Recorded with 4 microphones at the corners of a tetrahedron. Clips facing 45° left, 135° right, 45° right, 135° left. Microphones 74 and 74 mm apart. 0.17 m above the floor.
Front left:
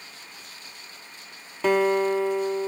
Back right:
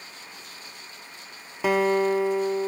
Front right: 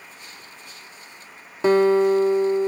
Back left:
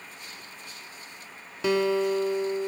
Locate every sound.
1.6 s a guitar: 60° right, 1.4 m